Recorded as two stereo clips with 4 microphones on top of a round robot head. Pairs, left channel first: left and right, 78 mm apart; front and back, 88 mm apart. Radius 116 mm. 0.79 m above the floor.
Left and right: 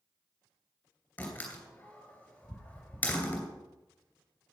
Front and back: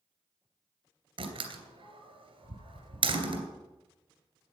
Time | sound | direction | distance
1.2 | a door slam | 165° left | 2.5 m